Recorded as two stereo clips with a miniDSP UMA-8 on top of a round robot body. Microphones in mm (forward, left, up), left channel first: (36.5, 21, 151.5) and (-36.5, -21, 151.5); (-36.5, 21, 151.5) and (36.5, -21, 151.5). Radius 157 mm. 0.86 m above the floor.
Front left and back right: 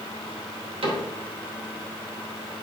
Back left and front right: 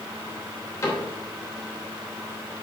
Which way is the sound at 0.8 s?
155° right.